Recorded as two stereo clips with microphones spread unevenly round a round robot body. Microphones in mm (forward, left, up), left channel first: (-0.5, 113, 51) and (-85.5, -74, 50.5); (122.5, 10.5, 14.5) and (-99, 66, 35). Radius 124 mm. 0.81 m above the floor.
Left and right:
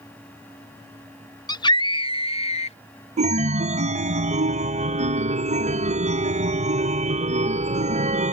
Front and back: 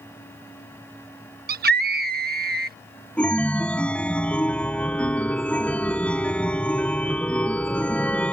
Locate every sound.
1.5 s a scream: 130° left; by 2.8 s 120° left
3.2 s a chime: 90° right